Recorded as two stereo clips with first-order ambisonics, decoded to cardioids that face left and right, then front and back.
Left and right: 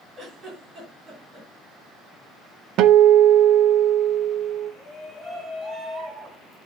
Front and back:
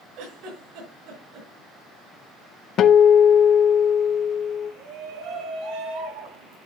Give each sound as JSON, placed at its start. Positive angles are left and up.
{"t": 0.2, "sound": "a giggle", "azimuth_deg": -155, "distance_m": 6.0}
{"t": 2.8, "sound": "a guitar", "azimuth_deg": -50, "distance_m": 0.7}
{"t": 4.8, "sound": "a shout", "azimuth_deg": 160, "distance_m": 6.0}